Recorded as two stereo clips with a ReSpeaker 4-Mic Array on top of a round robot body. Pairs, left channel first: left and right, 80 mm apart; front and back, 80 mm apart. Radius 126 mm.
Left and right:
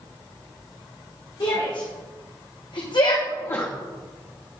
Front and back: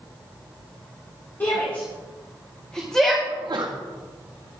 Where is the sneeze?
140° left, 1.1 m.